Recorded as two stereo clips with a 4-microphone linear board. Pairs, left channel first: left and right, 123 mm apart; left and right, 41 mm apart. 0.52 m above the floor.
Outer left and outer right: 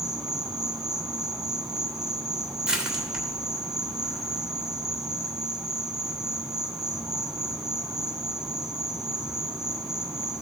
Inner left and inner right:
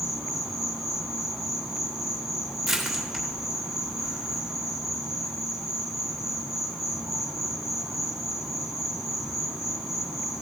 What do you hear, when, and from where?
0.0 s an insect: 5° right (ahead or behind), 0.9 m
2.7 s crushing: 5° right (ahead or behind), 1.6 m